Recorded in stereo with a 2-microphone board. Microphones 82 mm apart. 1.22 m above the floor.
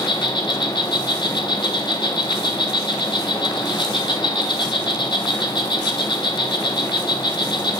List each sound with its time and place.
0.0 s an insect: 65° left (ahead or behind), 1.1 m